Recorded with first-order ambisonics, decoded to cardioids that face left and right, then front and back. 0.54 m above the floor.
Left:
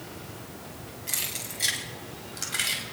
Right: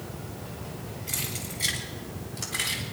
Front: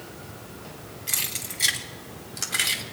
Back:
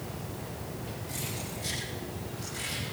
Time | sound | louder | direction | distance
1.1 | keys jangling | left 2 dB, front 10 dB | 15° left | 3 m